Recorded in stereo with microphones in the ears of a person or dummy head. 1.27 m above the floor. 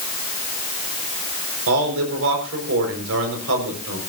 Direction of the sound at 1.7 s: 75° right (ahead or behind).